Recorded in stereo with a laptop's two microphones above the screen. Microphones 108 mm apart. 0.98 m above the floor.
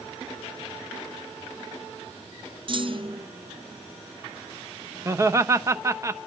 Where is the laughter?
25° right (ahead or behind), 0.9 m.